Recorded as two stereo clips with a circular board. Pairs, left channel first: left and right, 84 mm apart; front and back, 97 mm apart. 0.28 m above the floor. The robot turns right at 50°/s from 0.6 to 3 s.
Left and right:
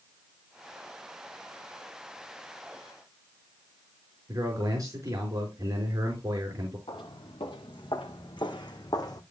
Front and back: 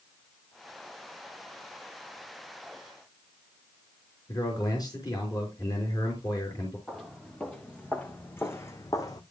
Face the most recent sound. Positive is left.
turn(degrees=45)